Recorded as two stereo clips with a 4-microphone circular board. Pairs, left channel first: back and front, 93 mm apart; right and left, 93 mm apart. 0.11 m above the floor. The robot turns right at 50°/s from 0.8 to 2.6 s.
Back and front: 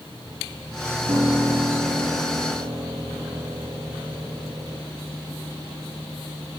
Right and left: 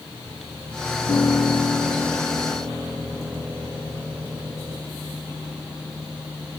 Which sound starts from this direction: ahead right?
A piano, at 1.1 s.